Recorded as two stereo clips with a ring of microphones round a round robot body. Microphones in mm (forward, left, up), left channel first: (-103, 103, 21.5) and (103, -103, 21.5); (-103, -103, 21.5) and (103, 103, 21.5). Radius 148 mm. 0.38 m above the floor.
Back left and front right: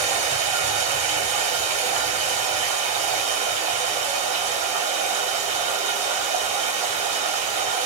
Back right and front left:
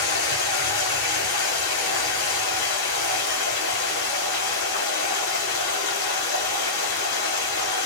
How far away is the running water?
About 1.4 m.